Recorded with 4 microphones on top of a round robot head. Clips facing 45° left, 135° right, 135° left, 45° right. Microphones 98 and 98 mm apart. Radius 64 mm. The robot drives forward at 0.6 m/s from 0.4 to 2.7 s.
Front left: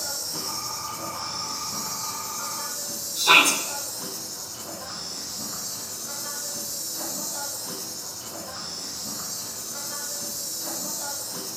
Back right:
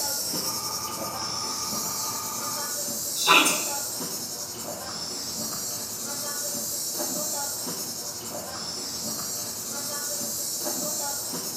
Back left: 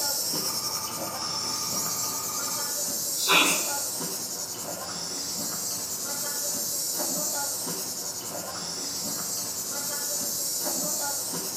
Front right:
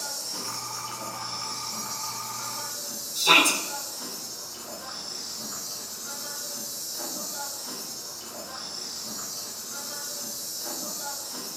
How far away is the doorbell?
No doorbell in this recording.